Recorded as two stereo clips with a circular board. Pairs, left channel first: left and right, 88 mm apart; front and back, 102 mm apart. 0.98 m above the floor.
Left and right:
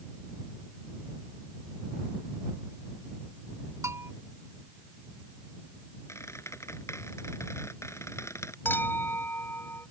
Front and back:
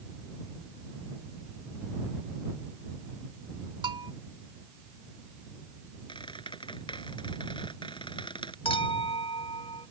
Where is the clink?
25° left.